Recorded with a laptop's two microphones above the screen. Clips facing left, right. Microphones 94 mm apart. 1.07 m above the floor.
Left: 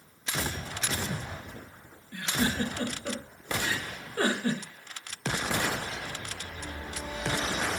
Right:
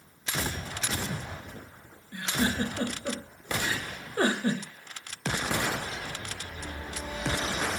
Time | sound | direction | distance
2.1 | a giggle | 20° right (ahead or behind) | 0.9 m